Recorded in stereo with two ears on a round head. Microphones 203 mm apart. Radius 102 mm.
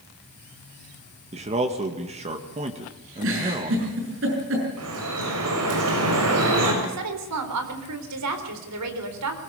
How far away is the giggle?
About 6.5 m.